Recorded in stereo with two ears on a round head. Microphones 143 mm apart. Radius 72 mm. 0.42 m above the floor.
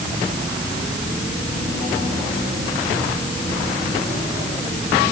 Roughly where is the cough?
No cough in this recording.